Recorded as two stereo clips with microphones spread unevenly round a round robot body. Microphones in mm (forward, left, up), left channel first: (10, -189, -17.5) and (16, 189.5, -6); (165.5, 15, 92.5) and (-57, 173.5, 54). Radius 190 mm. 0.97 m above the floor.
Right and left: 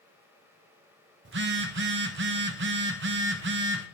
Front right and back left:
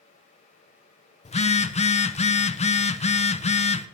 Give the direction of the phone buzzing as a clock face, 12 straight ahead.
11 o'clock.